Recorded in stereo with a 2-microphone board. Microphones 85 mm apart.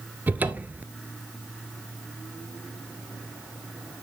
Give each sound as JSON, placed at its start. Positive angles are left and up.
{"t": 0.3, "sound": "a cupboard door", "side_deg": -20, "distance_m": 0.6}